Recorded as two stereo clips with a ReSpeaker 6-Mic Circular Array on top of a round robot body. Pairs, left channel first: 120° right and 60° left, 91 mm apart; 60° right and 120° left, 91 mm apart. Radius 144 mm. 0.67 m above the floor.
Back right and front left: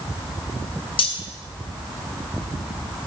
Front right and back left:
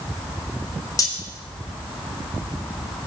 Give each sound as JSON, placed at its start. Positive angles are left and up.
{"t": 1.0, "sound": "cutlery clinking", "azimuth_deg": -110, "distance_m": 2.0}